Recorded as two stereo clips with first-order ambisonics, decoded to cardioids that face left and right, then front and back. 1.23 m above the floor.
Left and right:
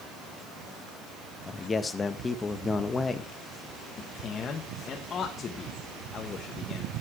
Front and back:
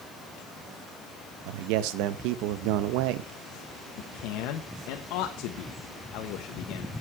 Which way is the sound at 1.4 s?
165° left.